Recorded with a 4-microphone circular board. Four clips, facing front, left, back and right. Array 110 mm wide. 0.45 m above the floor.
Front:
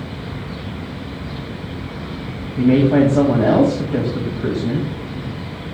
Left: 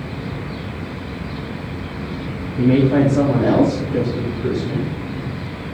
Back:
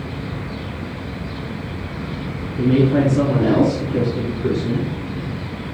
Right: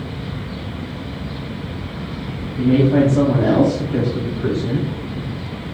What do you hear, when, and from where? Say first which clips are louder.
2.6 s a woman speaking: even, front 3 dB; 20° left, 2.5 m; by 4.9 s 35° right, 2.5 m